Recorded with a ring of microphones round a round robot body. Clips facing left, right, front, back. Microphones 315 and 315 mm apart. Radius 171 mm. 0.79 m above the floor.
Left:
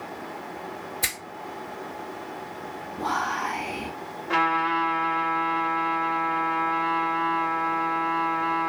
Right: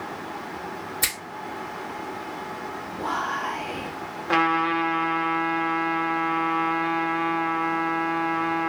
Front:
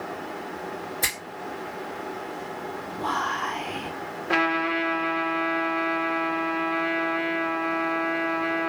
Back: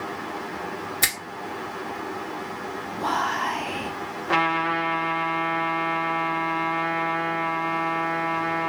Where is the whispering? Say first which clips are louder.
Left 1 dB, back 3 dB; 150° left, 1.3 m.